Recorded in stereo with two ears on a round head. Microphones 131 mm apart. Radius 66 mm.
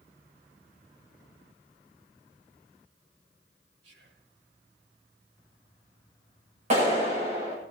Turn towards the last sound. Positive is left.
turn(degrees=-45)  # may be behind; listen again after turning